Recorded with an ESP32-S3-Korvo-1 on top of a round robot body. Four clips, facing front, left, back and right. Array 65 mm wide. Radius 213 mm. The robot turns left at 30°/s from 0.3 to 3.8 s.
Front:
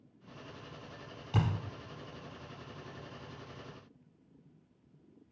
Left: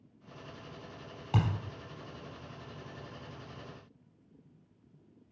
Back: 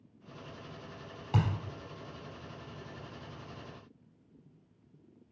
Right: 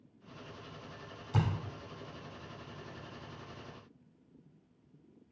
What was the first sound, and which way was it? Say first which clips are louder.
A thud: left 2 dB, back 1 dB; 125° left.